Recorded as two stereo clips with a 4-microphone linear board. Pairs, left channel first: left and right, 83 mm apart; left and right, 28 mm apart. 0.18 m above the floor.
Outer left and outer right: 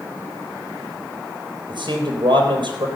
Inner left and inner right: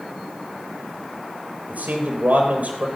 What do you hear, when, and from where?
1.7 s a man speaking: 75° right (ahead or behind), 4 m